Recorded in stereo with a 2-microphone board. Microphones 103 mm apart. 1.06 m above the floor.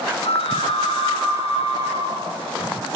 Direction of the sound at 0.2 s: 80° left.